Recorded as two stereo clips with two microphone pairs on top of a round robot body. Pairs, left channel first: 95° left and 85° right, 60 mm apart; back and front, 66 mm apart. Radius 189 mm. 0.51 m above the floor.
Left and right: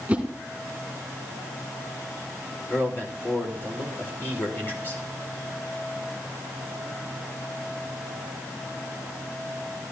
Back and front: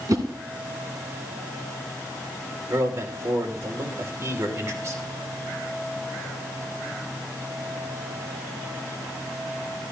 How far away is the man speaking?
About 2.5 m.